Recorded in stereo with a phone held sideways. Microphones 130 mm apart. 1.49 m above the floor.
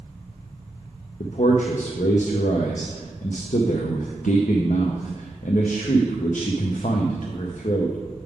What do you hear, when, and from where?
1.2 s a man speaking: 75° left (ahead or behind), 0.6 m